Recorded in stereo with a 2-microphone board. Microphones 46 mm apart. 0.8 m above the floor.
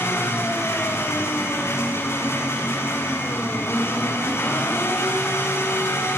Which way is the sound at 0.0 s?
80° left.